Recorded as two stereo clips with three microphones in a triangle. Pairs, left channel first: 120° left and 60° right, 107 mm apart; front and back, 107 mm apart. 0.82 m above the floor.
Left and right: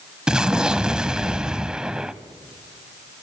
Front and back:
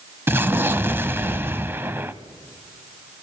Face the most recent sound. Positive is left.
turn(degrees=-135)